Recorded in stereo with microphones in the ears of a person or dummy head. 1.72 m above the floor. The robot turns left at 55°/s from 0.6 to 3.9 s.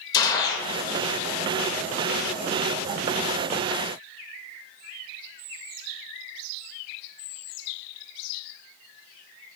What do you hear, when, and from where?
0.1 s a gunshot: 20° left (ahead or behind), 0.5 m